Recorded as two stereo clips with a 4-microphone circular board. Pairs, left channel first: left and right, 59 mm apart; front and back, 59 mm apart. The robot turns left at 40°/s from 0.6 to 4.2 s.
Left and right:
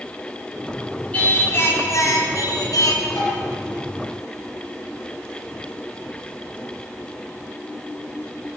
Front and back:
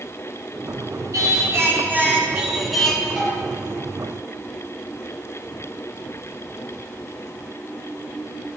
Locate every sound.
1.1 s singing: 155° left, 5 m; by 3.1 s 80° left, 5 m
3.2 s tapping: 95° left, 8 m; by 3.4 s 90° left, 8 m